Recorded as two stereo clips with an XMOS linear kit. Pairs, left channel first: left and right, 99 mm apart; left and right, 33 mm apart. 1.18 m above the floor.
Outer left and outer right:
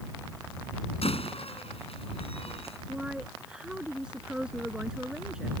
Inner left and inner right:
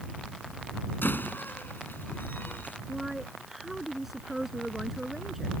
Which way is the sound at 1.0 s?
85° left.